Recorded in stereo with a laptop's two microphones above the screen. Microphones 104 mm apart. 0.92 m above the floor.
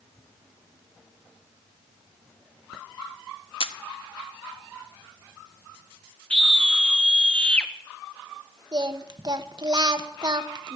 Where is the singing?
45° right (ahead or behind), 0.7 m.